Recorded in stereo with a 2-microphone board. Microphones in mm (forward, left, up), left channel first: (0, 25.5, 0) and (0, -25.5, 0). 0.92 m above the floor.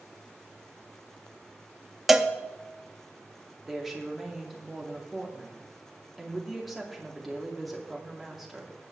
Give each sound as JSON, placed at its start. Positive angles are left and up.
{"t": 2.1, "sound": "a cowbell", "side_deg": -5, "distance_m": 0.7}
{"t": 3.7, "sound": "a woman speaking", "side_deg": 0, "distance_m": 2.0}